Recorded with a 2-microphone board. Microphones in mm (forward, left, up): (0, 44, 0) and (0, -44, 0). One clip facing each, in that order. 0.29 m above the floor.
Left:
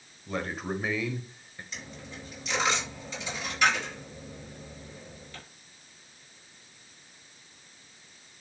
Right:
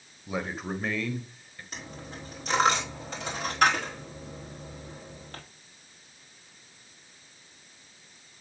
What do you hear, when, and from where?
0.3 s a man speaking: 10° right (ahead or behind), 1.2 m; by 1.6 s 20° left (ahead or behind), 1.2 m
1.7 s a dropped coin: 50° right (ahead or behind), 5 m